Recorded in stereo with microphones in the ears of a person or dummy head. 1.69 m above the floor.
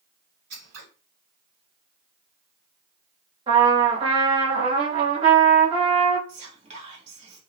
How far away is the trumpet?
About 1.3 m.